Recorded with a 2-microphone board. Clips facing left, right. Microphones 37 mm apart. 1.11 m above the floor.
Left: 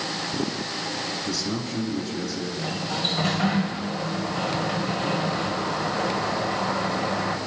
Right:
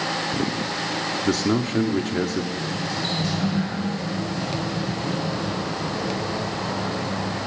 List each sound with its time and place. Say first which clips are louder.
1.2 s a man speaking: right 7 dB; 55° right (ahead or behind), 2 m
2.6 s a sliding door: right 1 dB; 40° left (ahead or behind), 4 m